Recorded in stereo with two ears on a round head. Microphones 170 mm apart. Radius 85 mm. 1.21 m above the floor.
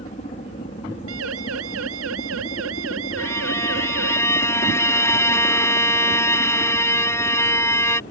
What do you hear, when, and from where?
0.0 s a helicopter: 35° left (ahead or behind); by 8.1 s 40° left (ahead or behind)
1.1 s a siren: 85° right; by 4.2 s 80° right
3.2 s a violin: 15° left (ahead or behind)